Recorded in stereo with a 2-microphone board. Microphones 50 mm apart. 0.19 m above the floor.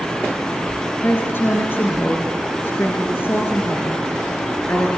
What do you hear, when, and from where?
1.0 s a woman speaking: 45° left (ahead or behind), 3.5 m